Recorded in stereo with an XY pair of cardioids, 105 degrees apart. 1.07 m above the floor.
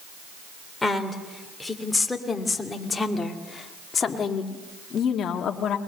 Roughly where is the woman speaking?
Ahead.